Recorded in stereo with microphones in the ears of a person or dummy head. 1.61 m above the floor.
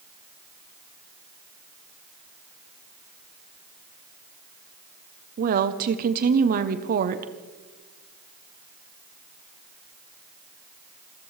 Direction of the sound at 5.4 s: 45° right (ahead or behind).